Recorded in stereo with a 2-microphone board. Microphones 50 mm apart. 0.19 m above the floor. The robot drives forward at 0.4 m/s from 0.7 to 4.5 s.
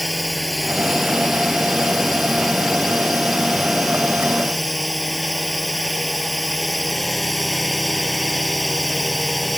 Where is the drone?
Centre (ahead or behind).